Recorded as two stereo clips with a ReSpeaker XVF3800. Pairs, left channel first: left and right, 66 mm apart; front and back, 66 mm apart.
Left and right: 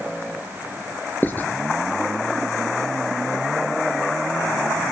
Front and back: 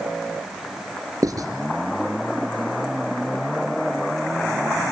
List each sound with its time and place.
1.2 s writing: 150° left, 3 m